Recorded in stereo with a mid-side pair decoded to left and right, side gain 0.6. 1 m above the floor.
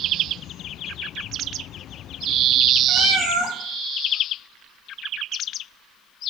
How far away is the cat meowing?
About 2.5 m.